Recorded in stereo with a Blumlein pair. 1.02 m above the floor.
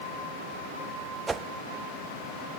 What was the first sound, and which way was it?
A whoosh, 15° right.